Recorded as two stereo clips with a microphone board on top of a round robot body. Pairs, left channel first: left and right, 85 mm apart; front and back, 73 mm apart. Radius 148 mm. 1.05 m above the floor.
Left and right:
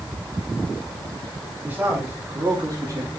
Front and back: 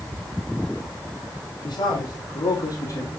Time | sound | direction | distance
1.6 | a man speaking | 20° right | 4 m